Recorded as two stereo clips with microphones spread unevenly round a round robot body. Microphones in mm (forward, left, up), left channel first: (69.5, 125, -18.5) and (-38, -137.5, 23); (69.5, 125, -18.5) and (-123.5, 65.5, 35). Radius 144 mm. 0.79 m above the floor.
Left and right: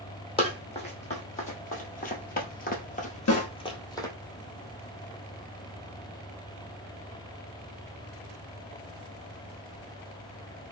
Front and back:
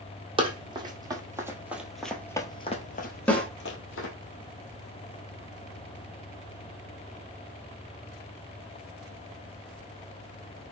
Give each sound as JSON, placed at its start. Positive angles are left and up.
{"t": 0.4, "sound": "running footsteps", "azimuth_deg": 140, "distance_m": 1.8}
{"t": 3.3, "sound": "a snare drum", "azimuth_deg": 90, "distance_m": 1.1}